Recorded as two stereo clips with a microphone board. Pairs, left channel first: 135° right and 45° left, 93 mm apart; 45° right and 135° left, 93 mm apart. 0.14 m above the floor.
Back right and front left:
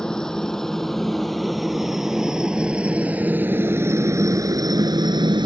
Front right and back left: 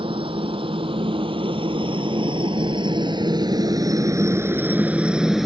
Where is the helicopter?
140° left; by 5.5 s 45° left.